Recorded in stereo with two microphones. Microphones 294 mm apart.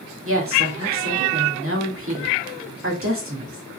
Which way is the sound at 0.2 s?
45° right (ahead or behind).